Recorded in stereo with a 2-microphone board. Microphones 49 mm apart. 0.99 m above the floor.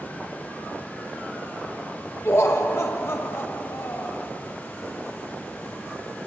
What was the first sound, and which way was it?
Laughter, 55° left (ahead or behind).